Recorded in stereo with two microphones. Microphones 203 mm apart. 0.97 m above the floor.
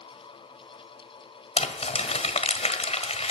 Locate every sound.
1.6 s crumpling: 30° left (ahead or behind), 1.4 m